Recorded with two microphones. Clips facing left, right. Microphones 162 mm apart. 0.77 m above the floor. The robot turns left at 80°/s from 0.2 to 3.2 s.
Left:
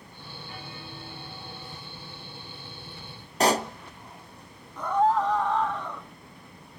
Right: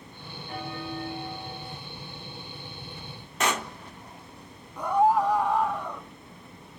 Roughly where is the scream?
Centre.